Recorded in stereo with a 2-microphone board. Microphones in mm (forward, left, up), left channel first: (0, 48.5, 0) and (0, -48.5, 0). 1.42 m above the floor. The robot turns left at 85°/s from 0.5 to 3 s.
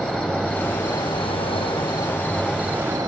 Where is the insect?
165° left, 1.0 m; by 3.1 s 45° right, 1.0 m.